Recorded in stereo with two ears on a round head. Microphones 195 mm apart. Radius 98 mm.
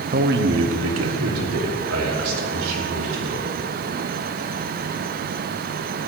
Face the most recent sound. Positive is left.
turn(degrees=-80)